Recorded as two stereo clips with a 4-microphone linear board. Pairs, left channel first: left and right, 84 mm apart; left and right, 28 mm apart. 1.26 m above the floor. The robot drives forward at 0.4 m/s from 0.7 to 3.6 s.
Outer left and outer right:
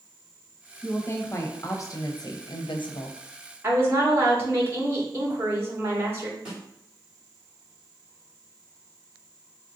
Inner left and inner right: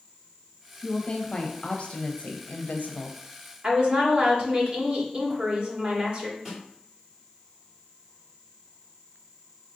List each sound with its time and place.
0.8 s a woman speaking: 25° left (ahead or behind), 1.1 m; by 3.2 s 85° left, 0.5 m
3.6 s a woman speaking: 30° right (ahead or behind), 1.3 m
6.5 s a snare drum: 10° right (ahead or behind), 2 m